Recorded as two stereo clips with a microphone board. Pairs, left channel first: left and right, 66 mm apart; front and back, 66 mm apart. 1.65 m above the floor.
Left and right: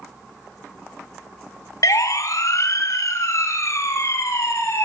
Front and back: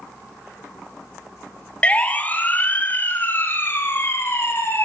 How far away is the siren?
About 2.5 m.